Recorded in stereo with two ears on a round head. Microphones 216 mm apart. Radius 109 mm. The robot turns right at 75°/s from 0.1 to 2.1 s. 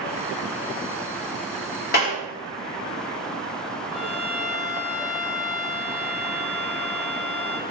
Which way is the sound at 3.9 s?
55° left (ahead or behind).